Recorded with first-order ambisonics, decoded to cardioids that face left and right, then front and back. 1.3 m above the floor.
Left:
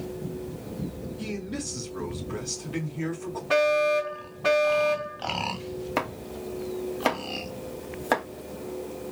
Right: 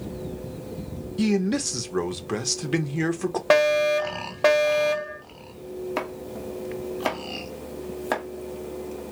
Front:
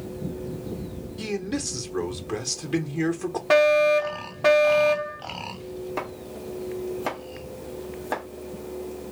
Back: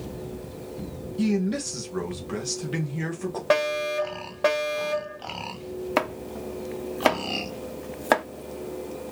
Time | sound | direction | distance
1.2 | a man speaking | 80° right | 1.3 m
3.5 | a fire alarm | 100° right | 2 m
6.0 | chopping | 175° left | 1.0 m